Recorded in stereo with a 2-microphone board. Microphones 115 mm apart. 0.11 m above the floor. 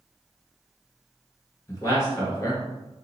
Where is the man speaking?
25° left (ahead or behind), 1.7 m.